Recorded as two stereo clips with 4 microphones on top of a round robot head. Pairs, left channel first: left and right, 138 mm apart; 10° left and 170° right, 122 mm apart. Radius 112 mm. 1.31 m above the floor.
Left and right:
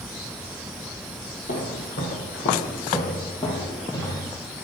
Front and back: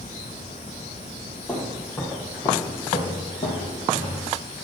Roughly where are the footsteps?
Left.